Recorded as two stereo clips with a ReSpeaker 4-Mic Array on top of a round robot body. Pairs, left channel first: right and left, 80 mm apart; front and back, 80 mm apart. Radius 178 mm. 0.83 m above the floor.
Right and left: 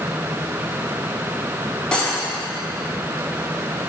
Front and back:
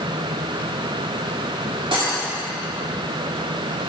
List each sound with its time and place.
1.9 s cutlery clinking: 170° right, 1.6 m